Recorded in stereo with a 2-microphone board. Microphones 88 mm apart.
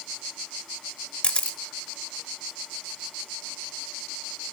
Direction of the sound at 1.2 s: 10° left (ahead or behind).